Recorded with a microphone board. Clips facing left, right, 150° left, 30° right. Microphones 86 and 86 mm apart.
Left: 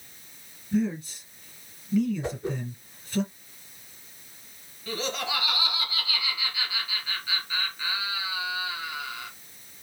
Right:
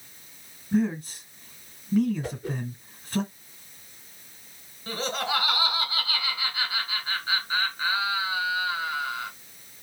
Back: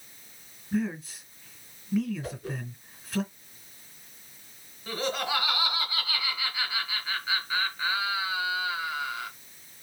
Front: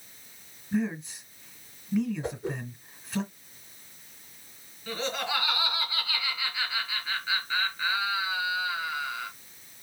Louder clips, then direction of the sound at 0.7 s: Right 2 dB, even; 120° right.